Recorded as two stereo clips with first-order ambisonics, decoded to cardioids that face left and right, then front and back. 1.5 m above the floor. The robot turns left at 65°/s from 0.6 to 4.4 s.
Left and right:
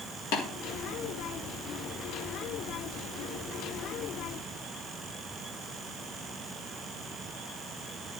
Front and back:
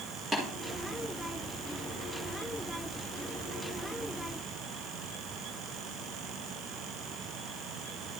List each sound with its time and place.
0.3 s tapping: 105° left, 3 m